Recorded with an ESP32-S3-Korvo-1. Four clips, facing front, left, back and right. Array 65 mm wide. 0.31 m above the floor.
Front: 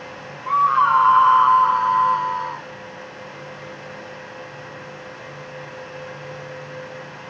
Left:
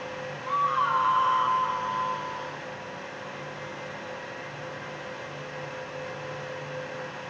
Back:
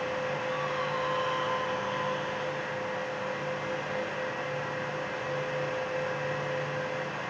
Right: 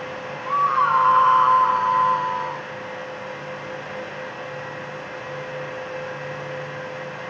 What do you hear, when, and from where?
0.5 s a scream: 15° right; by 2.7 s 40° right